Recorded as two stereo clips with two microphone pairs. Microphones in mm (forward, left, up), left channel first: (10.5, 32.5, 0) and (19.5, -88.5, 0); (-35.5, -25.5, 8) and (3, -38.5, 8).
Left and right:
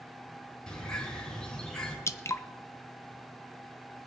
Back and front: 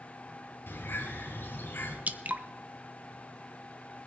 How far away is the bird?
About 3.5 m.